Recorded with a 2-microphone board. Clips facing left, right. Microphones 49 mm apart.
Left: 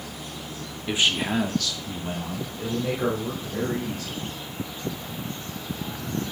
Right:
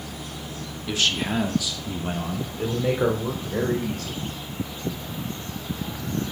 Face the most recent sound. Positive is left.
turn(degrees=-60)  # may be behind; listen again after turning